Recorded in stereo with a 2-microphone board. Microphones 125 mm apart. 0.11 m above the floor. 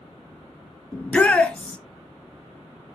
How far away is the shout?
About 1.1 m.